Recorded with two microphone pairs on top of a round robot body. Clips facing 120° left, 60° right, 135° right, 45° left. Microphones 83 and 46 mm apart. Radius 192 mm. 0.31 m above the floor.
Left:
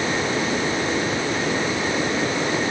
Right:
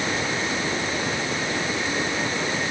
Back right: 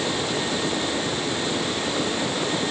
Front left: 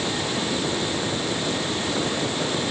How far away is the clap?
No clap in this recording.